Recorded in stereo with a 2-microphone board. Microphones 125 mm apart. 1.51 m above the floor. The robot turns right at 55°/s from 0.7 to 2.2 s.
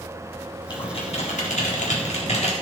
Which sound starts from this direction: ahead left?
Typing on a keyboard, at 0.7 s.